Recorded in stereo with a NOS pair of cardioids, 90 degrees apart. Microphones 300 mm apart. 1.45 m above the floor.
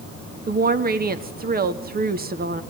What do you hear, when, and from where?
0.5 s a woman speaking: 30° right, 1.7 m